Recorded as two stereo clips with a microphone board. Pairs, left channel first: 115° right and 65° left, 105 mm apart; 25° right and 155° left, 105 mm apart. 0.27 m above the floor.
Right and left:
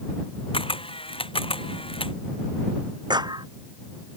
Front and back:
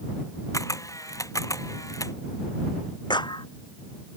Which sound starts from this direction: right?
A camera shutter, at 0.5 s.